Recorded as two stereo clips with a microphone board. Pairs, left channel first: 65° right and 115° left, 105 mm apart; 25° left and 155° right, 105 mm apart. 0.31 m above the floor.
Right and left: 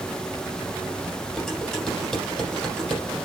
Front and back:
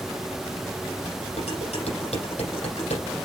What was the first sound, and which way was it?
Dishes clattering, 20° left.